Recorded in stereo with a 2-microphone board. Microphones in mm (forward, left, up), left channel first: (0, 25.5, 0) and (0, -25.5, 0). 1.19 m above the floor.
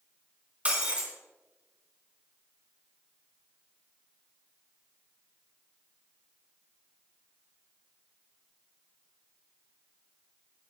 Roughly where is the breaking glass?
Right.